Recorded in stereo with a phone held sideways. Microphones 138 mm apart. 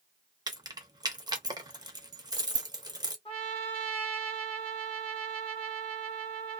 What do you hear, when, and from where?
0.5 s keys jangling: 30° right (ahead or behind), 0.6 m
3.2 s a trumpet: 40° left (ahead or behind), 1.4 m